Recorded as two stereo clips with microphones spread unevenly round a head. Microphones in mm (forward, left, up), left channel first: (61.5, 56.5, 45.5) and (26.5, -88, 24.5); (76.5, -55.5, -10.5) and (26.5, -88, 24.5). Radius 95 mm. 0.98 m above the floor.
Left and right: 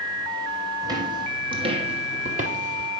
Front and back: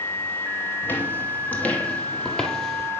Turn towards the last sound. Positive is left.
turn(degrees=-90)